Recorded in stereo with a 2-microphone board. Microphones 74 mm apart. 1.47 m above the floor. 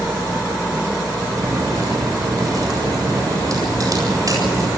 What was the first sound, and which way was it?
A crack, 50° right (ahead or behind).